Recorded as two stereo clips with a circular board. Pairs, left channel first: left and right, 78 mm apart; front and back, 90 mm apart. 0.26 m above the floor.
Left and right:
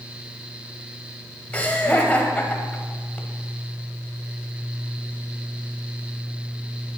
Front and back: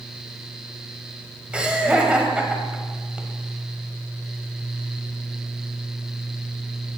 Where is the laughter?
125° left, 1.1 m.